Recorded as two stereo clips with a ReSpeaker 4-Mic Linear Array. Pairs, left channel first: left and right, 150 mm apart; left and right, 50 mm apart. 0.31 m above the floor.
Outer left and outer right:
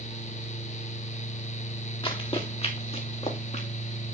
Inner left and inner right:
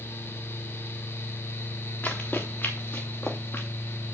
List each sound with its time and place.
2.0 s running footsteps: 35° left (ahead or behind), 2.5 m; by 3.7 s 50° left (ahead or behind), 3.5 m